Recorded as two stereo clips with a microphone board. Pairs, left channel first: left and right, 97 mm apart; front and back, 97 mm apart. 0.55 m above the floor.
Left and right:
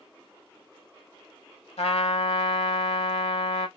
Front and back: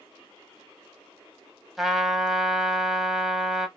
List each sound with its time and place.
1.8 s a trumpet: 95° left, 0.8 m